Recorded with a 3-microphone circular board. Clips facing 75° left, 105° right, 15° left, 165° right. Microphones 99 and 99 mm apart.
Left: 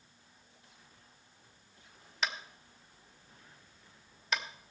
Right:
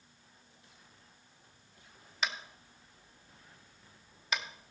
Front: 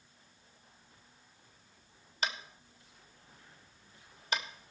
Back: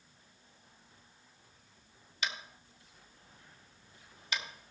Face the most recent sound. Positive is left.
turn(degrees=-15)